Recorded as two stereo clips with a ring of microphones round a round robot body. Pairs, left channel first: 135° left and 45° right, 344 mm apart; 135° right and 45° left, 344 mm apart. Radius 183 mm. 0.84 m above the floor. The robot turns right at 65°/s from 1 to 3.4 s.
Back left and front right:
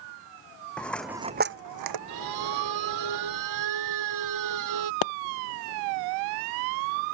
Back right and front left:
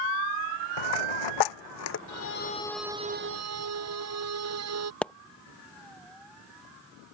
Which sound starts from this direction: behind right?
A dropped coin, at 0.8 s.